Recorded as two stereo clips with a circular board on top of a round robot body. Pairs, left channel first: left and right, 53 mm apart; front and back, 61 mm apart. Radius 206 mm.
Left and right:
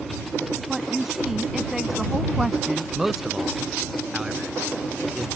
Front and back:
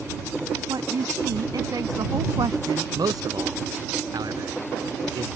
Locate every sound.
0.7 s a woman speaking: 175° right
3.0 s a man speaking: 175° right